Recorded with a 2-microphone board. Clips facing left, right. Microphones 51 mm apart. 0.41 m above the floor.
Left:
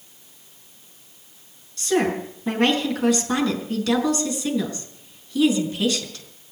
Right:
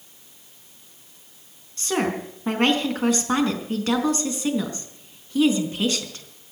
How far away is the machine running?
I don't hear a machine running.